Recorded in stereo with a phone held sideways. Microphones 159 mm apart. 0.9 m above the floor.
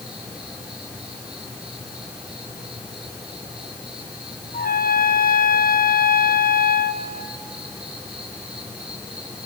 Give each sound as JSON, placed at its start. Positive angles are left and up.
{"t": 0.0, "sound": "an insect", "side_deg": -5, "distance_m": 4.5}
{"t": 4.5, "sound": "a trumpet", "side_deg": 65, "distance_m": 0.8}